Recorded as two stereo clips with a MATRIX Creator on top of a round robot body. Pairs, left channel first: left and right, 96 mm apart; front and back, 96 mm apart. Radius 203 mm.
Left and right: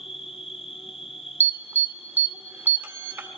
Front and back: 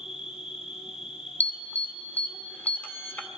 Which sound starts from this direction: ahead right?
An alarm, at 1.4 s.